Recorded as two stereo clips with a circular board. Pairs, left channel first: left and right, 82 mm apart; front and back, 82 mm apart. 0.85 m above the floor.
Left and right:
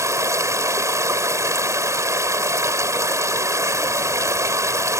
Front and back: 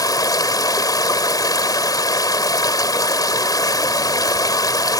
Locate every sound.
0.0 s running water: 40° right